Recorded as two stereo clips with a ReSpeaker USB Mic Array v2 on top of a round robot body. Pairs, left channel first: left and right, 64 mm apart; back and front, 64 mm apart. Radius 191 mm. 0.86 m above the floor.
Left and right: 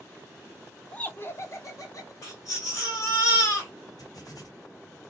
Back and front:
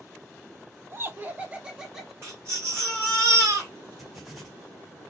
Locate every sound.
0.9 s laughter: 25° left, 1.0 m; by 2.1 s 85° left, 1.8 m
2.2 s a baby crying: 50° left, 1.9 m
4.0 s writing: 85° left, 1.7 m